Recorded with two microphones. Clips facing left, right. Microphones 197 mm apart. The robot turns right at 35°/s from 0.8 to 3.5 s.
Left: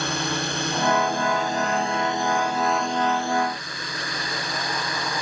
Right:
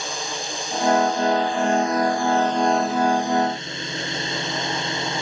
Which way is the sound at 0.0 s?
110° left.